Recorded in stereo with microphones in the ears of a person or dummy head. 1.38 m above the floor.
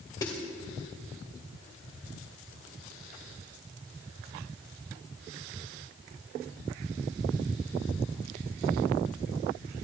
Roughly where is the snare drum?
Left.